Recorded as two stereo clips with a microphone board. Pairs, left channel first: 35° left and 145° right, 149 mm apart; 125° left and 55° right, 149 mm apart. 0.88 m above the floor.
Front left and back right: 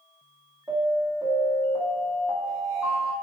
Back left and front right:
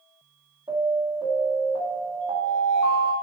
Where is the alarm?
85° right, 1.5 m.